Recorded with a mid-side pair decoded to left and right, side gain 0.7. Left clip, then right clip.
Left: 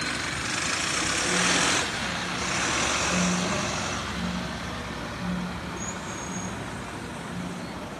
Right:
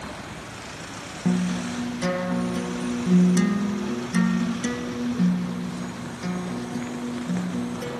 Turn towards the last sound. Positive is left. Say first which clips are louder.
# left 5 dB
turn(degrees=-65)